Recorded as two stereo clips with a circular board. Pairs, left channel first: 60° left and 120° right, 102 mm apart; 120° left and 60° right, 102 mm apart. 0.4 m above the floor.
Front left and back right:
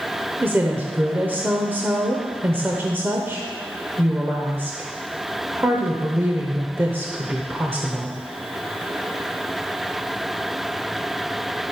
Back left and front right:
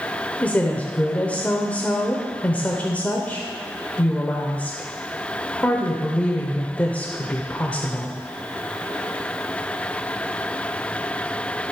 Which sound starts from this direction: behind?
A woman speaking, at 0.4 s.